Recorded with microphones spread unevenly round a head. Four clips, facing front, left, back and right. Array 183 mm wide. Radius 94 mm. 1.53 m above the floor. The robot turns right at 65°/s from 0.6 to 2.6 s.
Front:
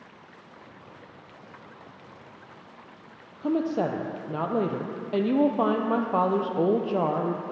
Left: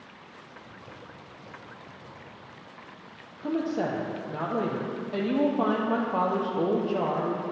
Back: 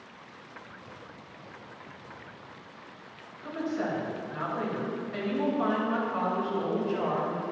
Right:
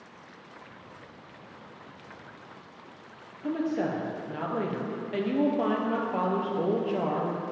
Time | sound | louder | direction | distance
3.4 | a woman speaking | left 1 dB, front 6 dB | 10° left | 0.6 m